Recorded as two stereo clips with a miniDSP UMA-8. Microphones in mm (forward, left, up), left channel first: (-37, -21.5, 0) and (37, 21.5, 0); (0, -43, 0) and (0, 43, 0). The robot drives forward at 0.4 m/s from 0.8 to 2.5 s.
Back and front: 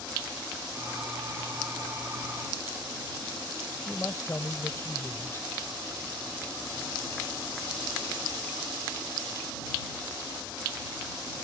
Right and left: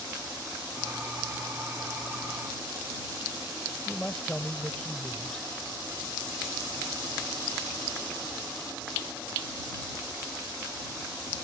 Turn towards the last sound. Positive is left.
turn(degrees=-160)